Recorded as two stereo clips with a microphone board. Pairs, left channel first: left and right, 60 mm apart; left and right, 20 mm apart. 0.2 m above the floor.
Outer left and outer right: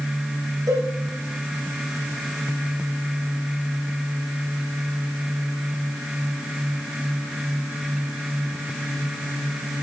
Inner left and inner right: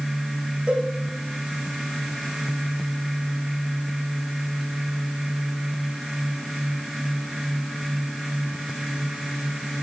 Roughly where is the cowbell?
Right.